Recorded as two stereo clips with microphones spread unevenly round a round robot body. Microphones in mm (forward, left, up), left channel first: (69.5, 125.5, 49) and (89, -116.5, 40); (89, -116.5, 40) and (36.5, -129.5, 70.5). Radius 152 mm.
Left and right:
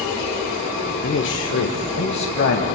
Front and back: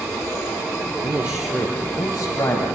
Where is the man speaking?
120° left, 1.1 m; by 2.8 s 65° left, 3 m.